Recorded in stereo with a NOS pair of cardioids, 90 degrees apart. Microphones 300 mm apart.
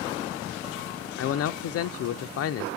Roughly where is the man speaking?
Ahead left.